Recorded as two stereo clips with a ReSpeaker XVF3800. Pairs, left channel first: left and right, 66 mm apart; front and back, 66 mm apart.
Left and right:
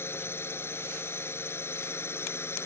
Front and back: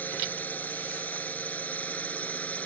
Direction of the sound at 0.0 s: 55° left.